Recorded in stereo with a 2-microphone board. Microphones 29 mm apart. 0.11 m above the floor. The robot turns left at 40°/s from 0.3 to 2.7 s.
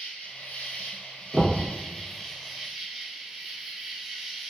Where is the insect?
85° left, 1.0 m; by 4.5 s 10° right, 1.0 m.